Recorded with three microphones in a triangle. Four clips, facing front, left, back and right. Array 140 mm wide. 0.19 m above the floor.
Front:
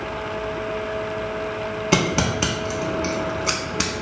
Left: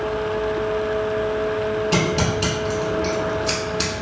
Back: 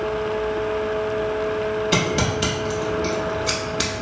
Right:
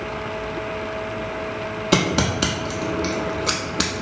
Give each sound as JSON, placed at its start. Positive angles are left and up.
{"t": 1.9, "sound": "scissors", "azimuth_deg": -50, "distance_m": 0.6}